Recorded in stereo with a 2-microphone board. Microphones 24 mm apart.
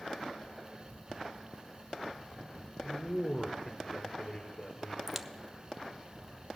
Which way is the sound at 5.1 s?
10° right (ahead or behind).